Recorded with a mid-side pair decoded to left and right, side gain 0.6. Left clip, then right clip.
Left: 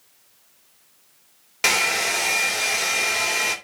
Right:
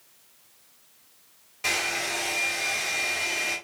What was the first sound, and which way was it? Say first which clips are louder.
A hair dryer: left 7 dB; 65° left.